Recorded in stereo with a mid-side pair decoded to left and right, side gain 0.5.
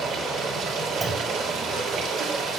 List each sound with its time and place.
0.0 s running water: 70° right, 2.5 m
1.0 s a clunk: 25° right, 2.5 m